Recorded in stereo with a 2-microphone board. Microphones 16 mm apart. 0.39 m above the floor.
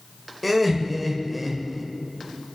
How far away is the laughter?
About 1.7 m.